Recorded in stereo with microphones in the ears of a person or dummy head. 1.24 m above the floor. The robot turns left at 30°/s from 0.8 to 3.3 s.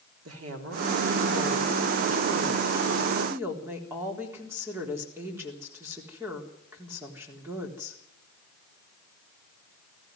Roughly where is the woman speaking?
Right.